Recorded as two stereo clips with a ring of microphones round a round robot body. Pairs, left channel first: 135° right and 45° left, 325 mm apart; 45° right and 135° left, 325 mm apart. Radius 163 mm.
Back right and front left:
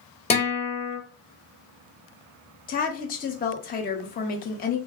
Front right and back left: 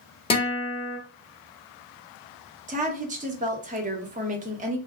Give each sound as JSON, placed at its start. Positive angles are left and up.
{"t": 0.3, "sound": "a guitar", "azimuth_deg": -95, "distance_m": 1.1}
{"t": 2.7, "sound": "a woman speaking", "azimuth_deg": -175, "distance_m": 0.7}